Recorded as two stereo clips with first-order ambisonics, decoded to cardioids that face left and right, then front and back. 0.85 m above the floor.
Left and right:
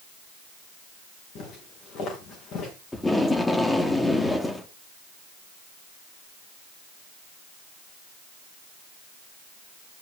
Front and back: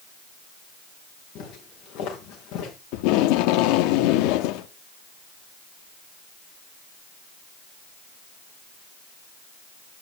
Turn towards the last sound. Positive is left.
turn(degrees=5)